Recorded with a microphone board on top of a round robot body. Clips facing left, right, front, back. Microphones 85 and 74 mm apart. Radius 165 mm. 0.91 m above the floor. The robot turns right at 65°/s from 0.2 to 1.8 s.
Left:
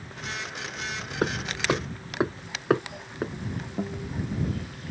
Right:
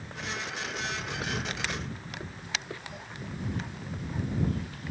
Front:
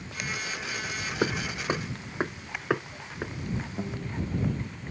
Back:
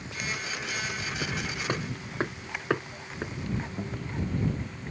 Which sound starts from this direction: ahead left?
Hammering, at 1.2 s.